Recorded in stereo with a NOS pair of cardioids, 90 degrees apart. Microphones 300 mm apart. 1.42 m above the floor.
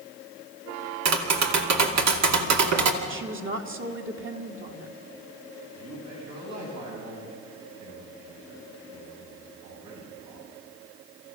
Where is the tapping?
65° right, 2.5 m.